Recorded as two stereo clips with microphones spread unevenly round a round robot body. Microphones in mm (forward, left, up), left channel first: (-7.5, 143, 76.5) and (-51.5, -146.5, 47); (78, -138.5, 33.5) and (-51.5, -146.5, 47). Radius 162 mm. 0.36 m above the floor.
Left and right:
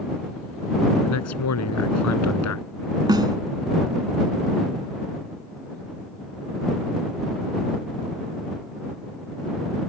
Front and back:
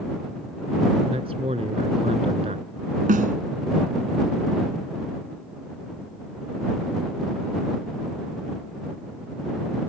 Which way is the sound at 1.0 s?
115° left.